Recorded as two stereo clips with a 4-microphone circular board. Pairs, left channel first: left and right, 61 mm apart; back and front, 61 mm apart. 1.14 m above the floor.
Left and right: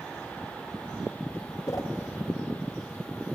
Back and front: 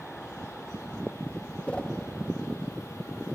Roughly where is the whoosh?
Left.